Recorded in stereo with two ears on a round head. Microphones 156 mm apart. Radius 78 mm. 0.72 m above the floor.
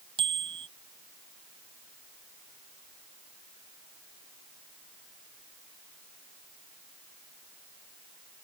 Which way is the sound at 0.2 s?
30° right (ahead or behind).